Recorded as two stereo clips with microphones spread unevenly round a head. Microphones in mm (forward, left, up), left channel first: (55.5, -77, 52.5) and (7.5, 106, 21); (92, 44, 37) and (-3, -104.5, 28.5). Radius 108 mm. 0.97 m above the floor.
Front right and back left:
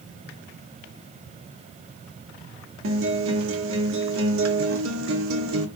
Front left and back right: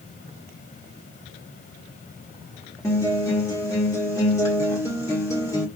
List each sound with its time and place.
2.8 s a guitar: 135° left, 1.1 m